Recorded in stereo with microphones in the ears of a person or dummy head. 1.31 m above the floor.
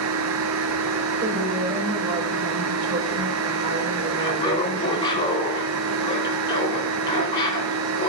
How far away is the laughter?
About 4.5 m.